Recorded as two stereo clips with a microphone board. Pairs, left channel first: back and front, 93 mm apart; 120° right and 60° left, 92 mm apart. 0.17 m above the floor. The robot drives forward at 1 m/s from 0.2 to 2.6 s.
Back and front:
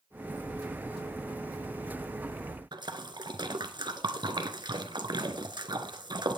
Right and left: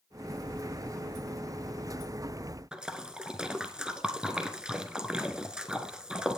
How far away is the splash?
About 1.3 m.